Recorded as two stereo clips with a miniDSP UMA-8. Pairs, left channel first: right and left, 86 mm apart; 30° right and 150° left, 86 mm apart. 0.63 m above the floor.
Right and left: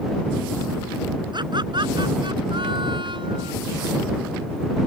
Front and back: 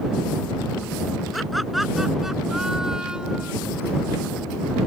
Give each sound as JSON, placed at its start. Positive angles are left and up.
{"t": 1.3, "sound": "laughter", "azimuth_deg": 60}